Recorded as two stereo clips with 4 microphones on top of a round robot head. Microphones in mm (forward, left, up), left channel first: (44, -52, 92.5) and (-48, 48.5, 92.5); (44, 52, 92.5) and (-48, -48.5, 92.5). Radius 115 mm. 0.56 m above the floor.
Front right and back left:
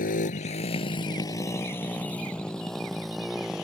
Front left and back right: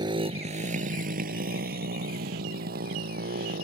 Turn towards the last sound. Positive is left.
turn(degrees=-140)